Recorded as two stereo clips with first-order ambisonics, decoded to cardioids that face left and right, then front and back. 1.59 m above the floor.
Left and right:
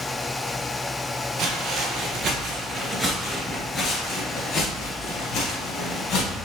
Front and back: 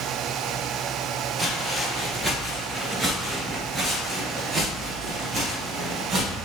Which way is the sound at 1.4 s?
95° right.